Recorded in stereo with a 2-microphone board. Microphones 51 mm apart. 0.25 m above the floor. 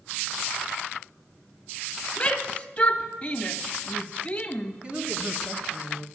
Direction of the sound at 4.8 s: 25° right (ahead or behind).